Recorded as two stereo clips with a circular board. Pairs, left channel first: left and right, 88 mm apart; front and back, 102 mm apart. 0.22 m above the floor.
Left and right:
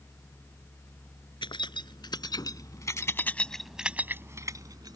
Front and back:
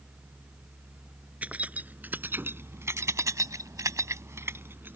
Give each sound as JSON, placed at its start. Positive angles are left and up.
{"t": 1.4, "sound": "keys jangling", "azimuth_deg": 105}